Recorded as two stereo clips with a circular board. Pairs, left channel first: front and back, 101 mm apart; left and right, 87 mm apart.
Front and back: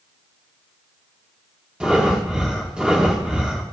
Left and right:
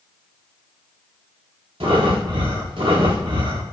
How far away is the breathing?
About 1.5 m.